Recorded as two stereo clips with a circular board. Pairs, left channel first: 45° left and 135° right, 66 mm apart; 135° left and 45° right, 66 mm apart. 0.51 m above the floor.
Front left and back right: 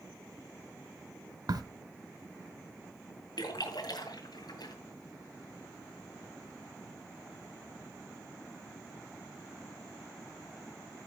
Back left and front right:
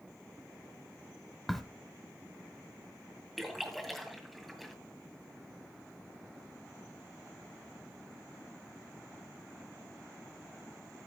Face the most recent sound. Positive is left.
turn(degrees=45)